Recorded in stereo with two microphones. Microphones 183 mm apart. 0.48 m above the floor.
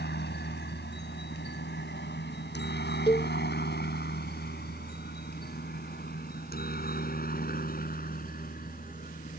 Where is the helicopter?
65° left (ahead or behind); by 9.4 s 50° left (ahead or behind).